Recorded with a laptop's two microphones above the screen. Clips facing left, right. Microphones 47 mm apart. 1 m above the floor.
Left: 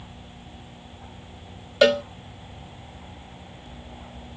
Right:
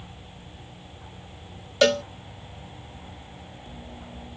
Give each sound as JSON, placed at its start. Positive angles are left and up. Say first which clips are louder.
{"t": 1.8, "sound": "a cowbell", "louder": "left 2 dB", "side_deg": 10}